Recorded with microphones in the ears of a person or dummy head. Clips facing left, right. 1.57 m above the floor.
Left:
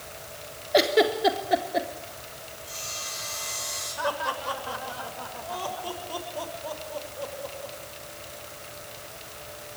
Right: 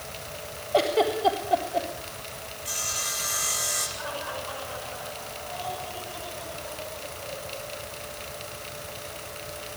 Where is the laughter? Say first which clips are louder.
Left 7 dB; 65° left (ahead or behind), 7 m.